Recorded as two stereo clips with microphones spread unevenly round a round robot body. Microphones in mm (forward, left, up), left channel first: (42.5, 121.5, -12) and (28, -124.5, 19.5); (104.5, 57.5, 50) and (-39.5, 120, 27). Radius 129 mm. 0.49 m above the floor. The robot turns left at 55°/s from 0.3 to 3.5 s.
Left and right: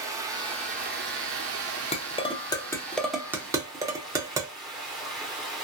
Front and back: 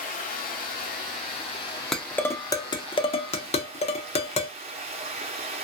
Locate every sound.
0.0 s running water: 10° right, 0.8 m; by 5.7 s 170° left, 0.8 m
1.9 s dishes clattering: 75° left, 0.7 m; by 4.5 s 15° right, 0.7 m